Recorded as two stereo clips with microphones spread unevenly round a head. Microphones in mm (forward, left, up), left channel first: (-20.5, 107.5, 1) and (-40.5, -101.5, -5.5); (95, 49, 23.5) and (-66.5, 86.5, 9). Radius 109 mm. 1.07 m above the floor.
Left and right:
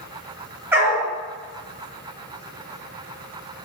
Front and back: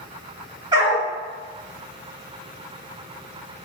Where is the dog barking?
160° right, 0.7 m.